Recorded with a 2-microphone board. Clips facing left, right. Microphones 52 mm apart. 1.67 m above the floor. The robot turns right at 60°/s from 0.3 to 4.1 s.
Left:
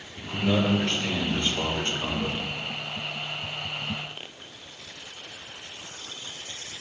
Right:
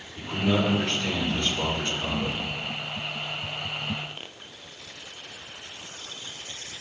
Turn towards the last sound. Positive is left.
turn(degrees=-175)